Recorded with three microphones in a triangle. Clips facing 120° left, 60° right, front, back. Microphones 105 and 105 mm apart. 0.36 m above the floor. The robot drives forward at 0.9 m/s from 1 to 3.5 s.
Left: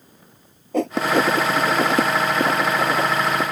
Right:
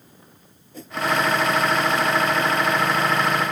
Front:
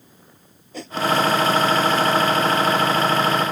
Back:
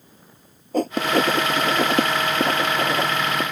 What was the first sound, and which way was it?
Writing, 140° left.